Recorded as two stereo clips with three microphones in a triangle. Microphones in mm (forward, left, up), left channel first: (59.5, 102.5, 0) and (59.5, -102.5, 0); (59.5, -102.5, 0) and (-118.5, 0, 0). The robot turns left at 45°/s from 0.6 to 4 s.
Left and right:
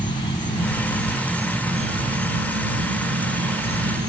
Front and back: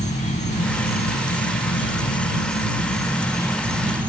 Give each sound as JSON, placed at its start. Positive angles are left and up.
{"t": 0.0, "sound": "an insect", "azimuth_deg": 25}